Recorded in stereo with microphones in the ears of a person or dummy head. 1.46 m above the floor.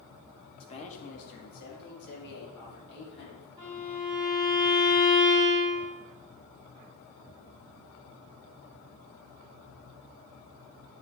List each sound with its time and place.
0.6 s a man speaking: 35° left (ahead or behind), 1.3 m; by 3.5 s 75° left (ahead or behind), 3.5 m
3.6 s a violin: 35° right (ahead or behind), 3.5 m